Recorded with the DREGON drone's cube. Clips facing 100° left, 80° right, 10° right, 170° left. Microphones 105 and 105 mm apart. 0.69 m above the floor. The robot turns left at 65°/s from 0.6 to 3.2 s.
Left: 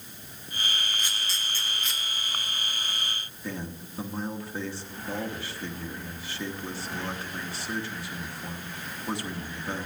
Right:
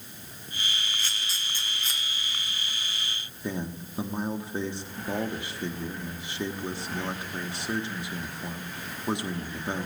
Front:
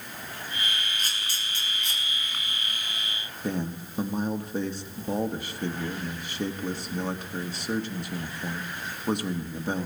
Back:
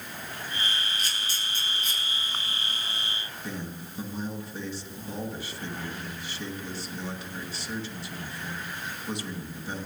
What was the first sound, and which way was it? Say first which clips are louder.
A camera shutter: left 1 dB, even; 30° left.